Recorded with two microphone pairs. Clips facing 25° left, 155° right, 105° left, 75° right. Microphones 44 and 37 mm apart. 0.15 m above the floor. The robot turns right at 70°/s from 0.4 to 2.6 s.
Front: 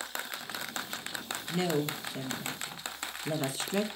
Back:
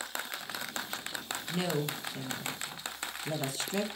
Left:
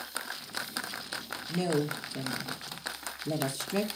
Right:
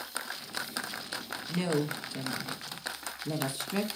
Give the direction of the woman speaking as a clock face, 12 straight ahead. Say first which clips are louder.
Front 3 dB, left 1 dB; 3 o'clock.